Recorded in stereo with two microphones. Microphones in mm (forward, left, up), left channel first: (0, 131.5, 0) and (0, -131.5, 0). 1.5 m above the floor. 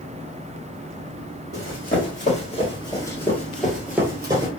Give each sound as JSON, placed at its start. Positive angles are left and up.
{"t": 1.5, "sound": "running footsteps", "side_deg": 40, "distance_m": 1.8}